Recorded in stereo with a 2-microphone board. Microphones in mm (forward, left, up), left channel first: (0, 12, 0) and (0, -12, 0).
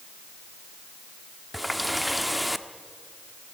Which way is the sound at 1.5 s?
Centre (ahead or behind).